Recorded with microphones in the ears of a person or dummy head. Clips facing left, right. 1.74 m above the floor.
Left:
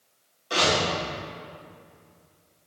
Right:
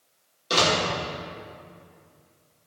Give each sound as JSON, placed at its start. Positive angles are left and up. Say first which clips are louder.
{"t": 0.5, "sound": "a door slam", "louder": "right 1 dB", "side_deg": -50, "distance_m": 2.0}